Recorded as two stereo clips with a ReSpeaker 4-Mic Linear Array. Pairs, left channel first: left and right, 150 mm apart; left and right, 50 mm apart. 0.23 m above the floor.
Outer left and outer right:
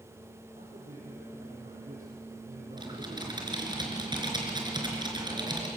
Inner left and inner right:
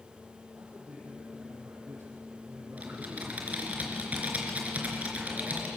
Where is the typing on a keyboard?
30° right (ahead or behind), 3.5 m.